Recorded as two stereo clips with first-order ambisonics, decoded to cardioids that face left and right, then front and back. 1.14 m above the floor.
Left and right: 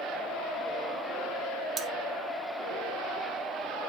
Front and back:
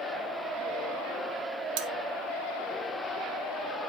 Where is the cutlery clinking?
160° right, 0.7 m.